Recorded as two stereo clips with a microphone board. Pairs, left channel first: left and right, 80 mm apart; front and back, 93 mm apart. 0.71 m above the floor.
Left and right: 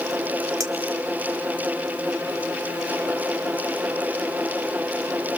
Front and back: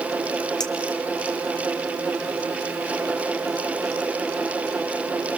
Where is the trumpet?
No trumpet in this recording.